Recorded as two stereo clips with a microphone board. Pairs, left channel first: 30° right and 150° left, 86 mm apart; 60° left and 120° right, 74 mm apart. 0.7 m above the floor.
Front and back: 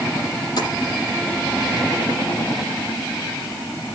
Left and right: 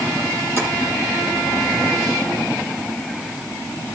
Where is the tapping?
70° right, 8 m.